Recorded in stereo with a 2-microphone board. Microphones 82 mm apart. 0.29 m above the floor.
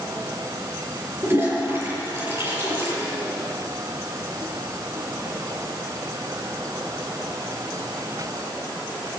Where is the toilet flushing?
30° right (ahead or behind), 7 m.